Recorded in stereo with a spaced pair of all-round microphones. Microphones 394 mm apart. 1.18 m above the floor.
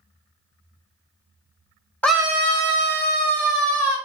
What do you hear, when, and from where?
2.0 s a scream: 5° left (ahead or behind), 0.6 m; by 4.0 s 75° right (ahead or behind), 1.3 m